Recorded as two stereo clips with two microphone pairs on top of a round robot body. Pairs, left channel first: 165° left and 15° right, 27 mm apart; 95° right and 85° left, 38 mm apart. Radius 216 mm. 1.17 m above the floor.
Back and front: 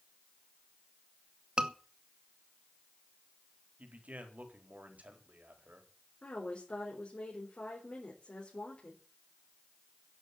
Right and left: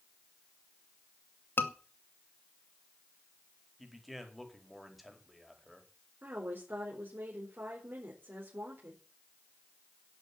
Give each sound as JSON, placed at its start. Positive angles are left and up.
{"t": 1.6, "sound": "a scream", "azimuth_deg": -70, "distance_m": 2.5}
{"t": 3.8, "sound": "a man speaking", "azimuth_deg": -5, "distance_m": 4.5}
{"t": 6.2, "sound": "a woman speaking", "azimuth_deg": 130, "distance_m": 4.5}